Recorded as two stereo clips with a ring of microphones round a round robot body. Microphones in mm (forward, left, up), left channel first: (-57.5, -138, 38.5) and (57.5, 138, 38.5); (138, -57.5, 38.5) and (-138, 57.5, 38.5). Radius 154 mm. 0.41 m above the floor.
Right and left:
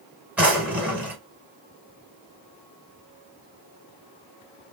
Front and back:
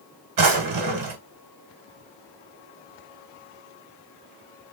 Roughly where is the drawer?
Behind left.